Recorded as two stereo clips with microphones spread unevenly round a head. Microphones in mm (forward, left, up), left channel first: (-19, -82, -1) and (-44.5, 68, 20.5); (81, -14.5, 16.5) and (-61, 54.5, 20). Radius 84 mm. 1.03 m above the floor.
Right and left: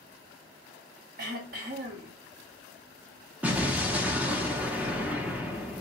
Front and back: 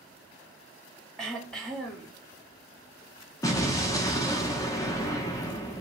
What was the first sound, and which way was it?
Throat clearing, 60° left.